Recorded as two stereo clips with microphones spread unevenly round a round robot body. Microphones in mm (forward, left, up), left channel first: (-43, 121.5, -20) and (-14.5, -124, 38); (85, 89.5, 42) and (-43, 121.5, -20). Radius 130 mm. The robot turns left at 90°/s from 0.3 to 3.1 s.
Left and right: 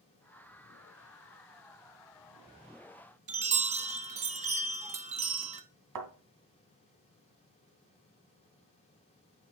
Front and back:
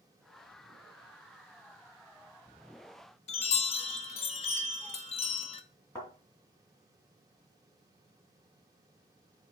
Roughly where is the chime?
Ahead right.